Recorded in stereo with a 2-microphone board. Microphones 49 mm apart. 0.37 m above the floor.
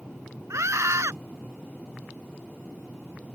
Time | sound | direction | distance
0.5 | a scream | 75° right (ahead or behind) | ?